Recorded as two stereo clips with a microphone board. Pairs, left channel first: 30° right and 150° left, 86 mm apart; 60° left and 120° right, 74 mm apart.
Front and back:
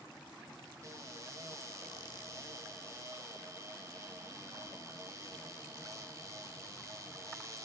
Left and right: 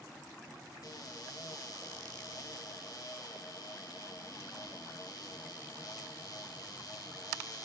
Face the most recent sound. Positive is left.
turn(degrees=95)